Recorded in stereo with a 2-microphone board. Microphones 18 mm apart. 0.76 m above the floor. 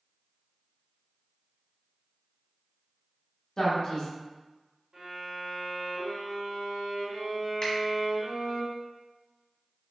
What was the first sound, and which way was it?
A man speaking, 40° left (ahead or behind).